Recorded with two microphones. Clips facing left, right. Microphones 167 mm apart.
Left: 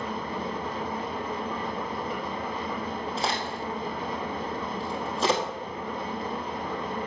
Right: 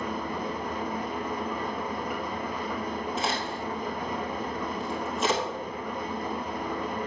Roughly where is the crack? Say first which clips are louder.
Even; left.